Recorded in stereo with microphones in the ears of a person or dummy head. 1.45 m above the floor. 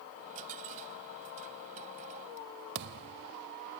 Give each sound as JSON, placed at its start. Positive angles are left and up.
{"t": 0.2, "sound": "a dropped coin", "side_deg": -45}
{"t": 2.8, "sound": "a thud", "side_deg": -60}